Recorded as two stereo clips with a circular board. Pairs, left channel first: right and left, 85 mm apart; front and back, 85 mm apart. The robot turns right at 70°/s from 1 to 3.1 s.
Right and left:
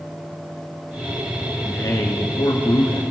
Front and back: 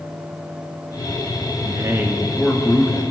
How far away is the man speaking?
About 2.5 m.